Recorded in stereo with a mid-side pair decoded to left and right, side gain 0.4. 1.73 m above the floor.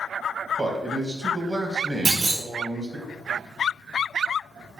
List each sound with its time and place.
0.6 s a man speaking: 40° right, 1.3 m
2.0 s a clunk: 50° right, 2 m